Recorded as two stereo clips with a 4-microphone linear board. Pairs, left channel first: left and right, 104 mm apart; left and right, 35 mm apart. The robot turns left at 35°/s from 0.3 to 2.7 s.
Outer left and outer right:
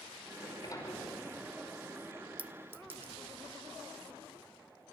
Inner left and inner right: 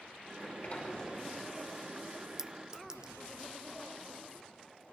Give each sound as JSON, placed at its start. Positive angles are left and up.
{"t": 0.3, "sound": "a sliding door", "azimuth_deg": 50, "distance_m": 5.0}
{"t": 2.4, "sound": "a clink", "side_deg": -15, "distance_m": 0.7}